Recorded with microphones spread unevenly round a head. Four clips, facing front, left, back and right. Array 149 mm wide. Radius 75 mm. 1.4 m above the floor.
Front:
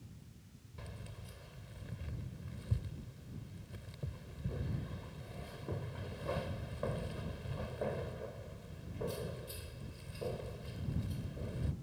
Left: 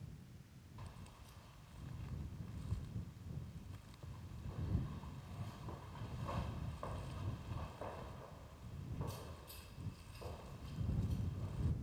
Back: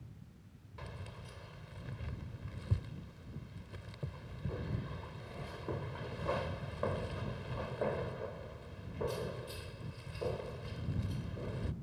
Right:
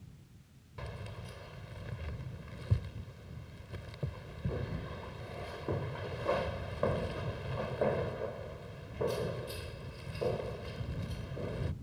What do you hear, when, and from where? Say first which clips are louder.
0.8 s keys jangling: right 13 dB, back 3 dB; 100° right